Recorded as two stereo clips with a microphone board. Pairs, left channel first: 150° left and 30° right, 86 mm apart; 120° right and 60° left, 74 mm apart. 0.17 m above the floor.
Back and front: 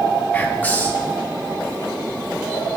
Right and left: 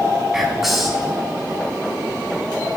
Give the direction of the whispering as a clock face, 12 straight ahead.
7 o'clock.